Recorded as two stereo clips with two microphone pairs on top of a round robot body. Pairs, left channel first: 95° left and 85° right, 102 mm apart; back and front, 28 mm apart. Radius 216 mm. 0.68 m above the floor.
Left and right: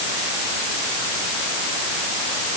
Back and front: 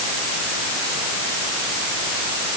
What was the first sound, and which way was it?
Only background noise.